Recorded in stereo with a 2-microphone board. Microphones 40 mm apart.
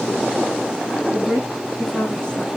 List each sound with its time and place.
1.1 s a woman speaking: 25° left (ahead or behind), 3.5 m